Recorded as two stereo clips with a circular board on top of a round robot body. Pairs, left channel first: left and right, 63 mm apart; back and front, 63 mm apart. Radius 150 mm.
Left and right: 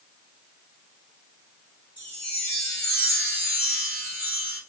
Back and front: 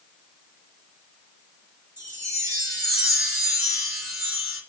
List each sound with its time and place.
2.0 s a chime: 30° left, 1.9 m